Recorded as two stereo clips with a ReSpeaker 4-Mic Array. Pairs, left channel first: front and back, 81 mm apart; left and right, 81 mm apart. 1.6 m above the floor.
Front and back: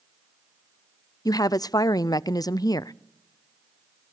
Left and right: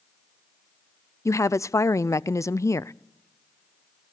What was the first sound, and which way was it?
A woman speaking, 40° left.